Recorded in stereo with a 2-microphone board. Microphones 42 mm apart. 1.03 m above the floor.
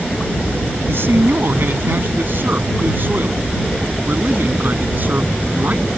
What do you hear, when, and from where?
0.8 s a man speaking: 60° right (ahead or behind); by 5.9 s 45° right (ahead or behind)